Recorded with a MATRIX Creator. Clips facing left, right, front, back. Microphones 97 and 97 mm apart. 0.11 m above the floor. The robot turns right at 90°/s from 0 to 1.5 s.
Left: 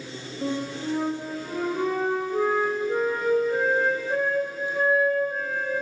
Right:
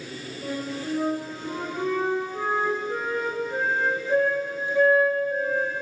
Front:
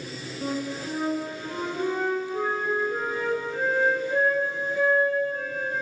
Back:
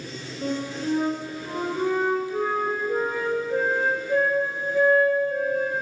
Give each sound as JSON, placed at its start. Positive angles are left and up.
{"t": 0.4, "sound": "a flute", "azimuth_deg": 45, "distance_m": 4.5}